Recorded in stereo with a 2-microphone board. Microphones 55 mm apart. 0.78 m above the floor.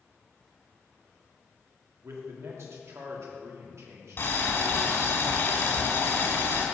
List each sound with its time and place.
2.0 s a man speaking: 60° right (ahead or behind), 1.7 m
4.2 s boiling: 50° left (ahead or behind), 2 m